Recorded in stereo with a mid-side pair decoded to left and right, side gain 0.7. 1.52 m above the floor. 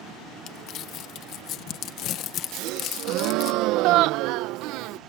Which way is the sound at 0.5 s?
50° left.